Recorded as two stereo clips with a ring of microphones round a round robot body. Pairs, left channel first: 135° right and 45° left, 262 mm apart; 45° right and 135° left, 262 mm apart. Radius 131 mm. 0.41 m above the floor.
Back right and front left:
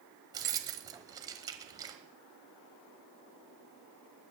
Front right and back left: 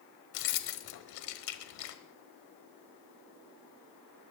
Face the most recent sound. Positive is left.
turn(degrees=-30)